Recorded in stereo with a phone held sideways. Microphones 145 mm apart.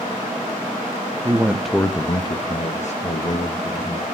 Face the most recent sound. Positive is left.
turn(degrees=70)  # may be behind; listen again after turning